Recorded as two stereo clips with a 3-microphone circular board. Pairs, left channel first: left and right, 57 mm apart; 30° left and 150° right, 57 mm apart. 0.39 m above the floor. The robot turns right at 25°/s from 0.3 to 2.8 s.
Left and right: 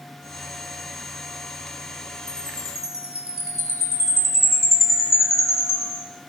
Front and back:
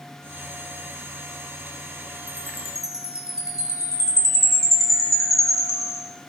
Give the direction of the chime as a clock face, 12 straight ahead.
11 o'clock.